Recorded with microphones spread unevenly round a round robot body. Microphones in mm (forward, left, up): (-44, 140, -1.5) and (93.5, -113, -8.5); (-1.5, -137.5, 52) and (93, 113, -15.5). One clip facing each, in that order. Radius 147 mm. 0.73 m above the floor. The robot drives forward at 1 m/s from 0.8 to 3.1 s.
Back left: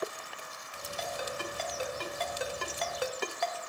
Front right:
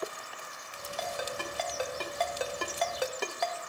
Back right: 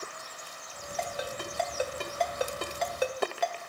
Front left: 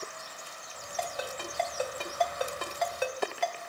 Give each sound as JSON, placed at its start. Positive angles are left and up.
{"t": 1.0, "sound": "a ringtone", "azimuth_deg": -25, "distance_m": 3.0}